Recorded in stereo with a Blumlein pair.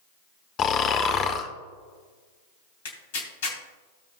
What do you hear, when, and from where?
0.6 s snoring: 30° left, 1.0 m
2.9 s tearing paper: 55° left, 3 m